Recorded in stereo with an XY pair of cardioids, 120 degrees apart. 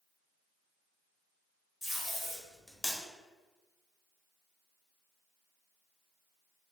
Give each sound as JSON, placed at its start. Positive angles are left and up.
{"t": 1.8, "sound": "tape being pulled", "azimuth_deg": 20, "distance_m": 1.2}